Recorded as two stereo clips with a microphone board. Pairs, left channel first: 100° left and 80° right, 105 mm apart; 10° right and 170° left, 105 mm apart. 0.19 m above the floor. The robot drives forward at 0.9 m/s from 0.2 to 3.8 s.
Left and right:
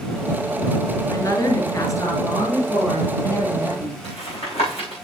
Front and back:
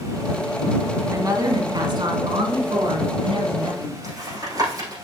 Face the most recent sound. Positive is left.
turn(degrees=115)